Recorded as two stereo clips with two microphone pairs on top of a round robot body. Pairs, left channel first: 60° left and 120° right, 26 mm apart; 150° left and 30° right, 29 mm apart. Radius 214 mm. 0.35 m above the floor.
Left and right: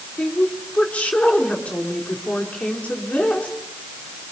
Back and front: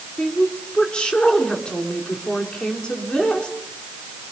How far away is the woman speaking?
About 5.5 m.